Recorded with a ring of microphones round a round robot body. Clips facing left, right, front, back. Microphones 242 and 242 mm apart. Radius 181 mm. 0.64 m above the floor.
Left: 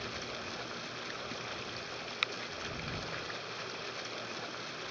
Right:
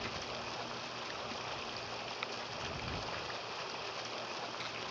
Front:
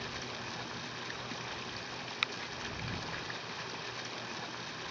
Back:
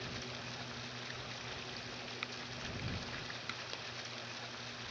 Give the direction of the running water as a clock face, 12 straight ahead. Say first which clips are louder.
Left 1 dB, front 3 dB; 11 o'clock.